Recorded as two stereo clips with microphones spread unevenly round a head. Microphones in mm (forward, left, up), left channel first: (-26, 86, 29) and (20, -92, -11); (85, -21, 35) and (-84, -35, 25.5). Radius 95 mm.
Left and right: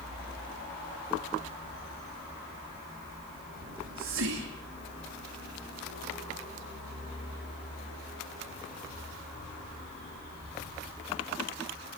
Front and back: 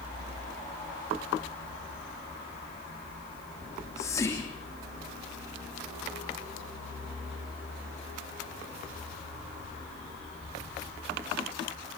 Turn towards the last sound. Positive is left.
turn(degrees=-70)